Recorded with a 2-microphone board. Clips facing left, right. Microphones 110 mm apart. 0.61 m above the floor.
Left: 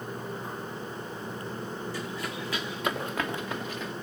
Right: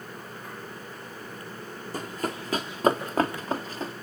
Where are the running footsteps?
50° right (ahead or behind), 2.5 m; by 3.9 s 35° right (ahead or behind), 3.5 m.